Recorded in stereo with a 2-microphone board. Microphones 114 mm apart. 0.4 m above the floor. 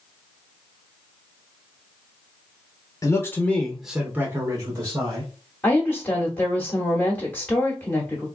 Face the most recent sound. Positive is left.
turn(degrees=10)  # may be behind; listen again after turning